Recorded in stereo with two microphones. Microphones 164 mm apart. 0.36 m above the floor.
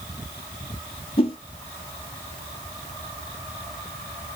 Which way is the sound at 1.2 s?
35° left (ahead or behind).